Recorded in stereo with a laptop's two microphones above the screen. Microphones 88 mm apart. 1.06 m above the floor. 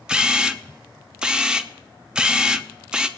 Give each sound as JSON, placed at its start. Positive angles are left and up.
{"t": 0.1, "sound": "a camera shutter", "side_deg": -10, "distance_m": 0.6}